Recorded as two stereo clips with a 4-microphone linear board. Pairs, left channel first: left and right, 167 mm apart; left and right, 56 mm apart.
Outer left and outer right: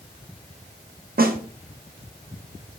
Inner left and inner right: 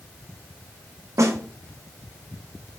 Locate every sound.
1.2 s a snare drum: 65° right (ahead or behind), 0.5 m